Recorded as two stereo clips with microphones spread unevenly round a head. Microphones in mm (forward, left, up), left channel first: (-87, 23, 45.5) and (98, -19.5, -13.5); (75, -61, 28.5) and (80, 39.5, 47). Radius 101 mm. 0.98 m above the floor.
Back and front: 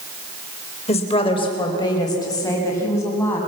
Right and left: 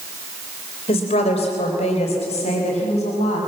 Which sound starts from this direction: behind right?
A woman speaking, at 0.9 s.